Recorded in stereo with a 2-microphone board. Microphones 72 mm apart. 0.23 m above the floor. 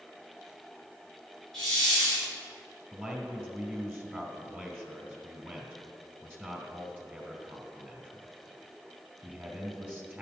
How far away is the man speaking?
About 1.9 m.